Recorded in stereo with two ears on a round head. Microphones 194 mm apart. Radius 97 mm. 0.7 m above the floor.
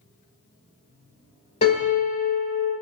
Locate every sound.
1.6 s a piano: 30° left (ahead or behind), 1.7 m